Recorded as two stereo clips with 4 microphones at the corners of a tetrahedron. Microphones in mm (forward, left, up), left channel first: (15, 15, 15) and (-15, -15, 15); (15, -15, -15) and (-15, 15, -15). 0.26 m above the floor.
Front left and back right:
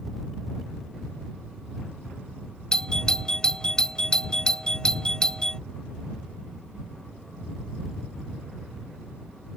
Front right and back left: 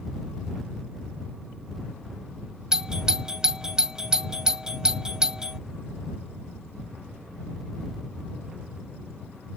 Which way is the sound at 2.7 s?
80° left.